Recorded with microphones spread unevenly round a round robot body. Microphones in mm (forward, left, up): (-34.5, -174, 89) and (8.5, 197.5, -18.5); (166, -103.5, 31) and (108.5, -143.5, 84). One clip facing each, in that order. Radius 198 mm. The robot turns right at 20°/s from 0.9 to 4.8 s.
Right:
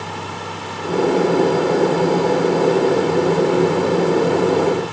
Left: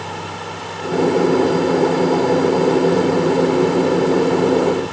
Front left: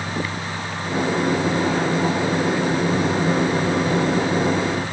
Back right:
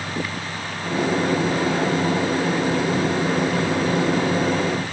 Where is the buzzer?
No buzzer in this recording.